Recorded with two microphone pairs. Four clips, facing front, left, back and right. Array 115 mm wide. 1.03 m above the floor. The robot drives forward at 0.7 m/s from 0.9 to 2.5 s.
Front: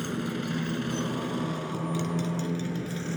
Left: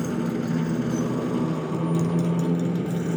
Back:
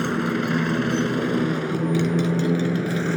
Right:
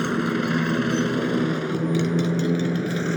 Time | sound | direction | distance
0.0 | a motorcycle | 130° right | ?